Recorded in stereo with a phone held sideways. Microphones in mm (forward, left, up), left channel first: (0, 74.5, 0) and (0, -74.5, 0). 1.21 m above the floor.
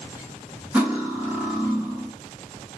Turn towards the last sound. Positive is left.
turn(degrees=-10)  # may be behind; listen again after turning